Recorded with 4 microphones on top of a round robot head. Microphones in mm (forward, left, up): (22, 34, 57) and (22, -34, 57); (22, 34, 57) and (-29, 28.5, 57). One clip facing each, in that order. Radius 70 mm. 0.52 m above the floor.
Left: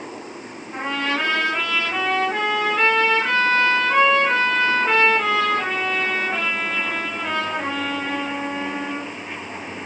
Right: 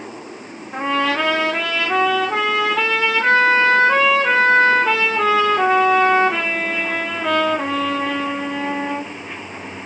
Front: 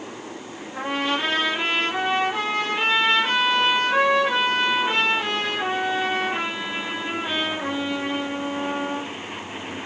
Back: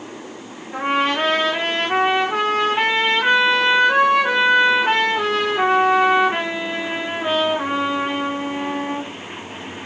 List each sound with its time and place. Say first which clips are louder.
0.7 s a trumpet: right 5 dB, back 6 dB; 115° right, 8.5 m